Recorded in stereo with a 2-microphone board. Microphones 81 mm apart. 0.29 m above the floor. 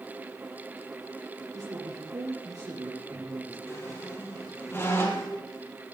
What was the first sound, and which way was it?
A man speaking, 50° right (ahead or behind).